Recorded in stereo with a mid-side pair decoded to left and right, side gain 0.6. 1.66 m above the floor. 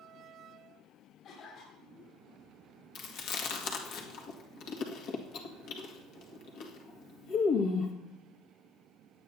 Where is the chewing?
65° left, 1.9 m.